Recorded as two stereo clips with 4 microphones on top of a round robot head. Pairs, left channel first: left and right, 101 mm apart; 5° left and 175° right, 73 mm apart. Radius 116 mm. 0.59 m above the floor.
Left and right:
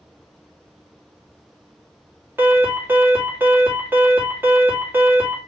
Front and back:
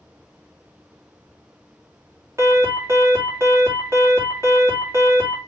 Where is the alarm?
150° right, 2.0 m.